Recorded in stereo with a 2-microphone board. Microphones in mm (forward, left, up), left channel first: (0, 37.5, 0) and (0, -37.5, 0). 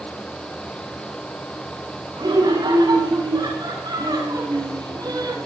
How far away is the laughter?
About 8.5 m.